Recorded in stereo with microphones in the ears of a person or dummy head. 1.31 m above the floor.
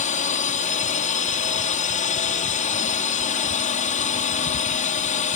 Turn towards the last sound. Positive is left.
turn(degrees=35)  # may be behind; listen again after turning